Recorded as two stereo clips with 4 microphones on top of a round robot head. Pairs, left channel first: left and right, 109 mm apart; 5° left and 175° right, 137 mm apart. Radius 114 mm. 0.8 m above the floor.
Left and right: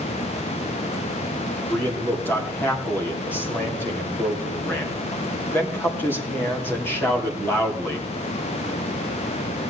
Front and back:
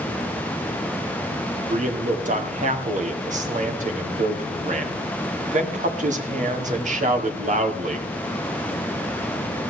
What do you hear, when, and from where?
1.7 s a man speaking: 165° left, 2.5 m